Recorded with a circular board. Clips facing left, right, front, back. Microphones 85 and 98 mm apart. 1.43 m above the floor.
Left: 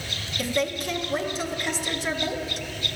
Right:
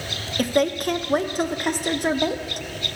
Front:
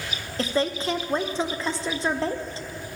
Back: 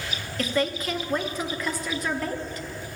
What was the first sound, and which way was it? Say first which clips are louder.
A woman speaking: right 6 dB, front 1 dB; 60° right.